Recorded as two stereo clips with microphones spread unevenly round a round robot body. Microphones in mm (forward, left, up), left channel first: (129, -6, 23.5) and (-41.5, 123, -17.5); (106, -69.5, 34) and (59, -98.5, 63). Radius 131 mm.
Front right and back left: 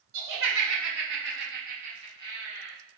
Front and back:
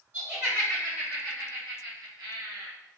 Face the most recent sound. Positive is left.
turn(degrees=-130)